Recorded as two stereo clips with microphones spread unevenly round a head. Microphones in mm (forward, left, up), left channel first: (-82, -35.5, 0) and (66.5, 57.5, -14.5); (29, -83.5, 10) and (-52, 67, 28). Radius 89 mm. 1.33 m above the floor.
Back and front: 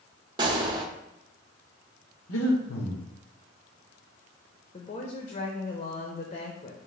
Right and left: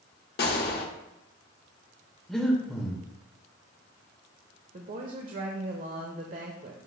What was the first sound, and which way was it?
A gunshot, 35° right.